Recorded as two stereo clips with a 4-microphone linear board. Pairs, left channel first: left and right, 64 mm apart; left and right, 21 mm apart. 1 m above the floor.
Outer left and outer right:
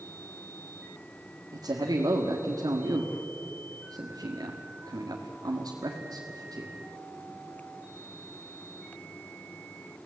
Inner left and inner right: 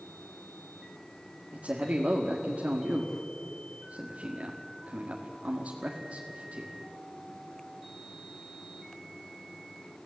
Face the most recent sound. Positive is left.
turn(degrees=-80)